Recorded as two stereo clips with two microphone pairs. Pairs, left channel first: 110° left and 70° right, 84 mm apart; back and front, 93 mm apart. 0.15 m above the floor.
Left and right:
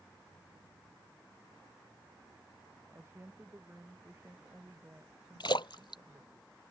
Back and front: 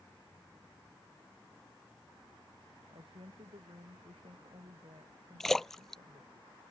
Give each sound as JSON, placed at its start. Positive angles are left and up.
{"t": 2.9, "sound": "a woman speaking", "azimuth_deg": -5}
{"t": 5.4, "sound": "a splash", "azimuth_deg": 90}